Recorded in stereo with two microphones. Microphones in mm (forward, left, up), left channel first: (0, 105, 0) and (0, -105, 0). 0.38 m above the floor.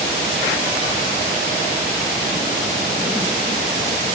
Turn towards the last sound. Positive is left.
No sound to turn to.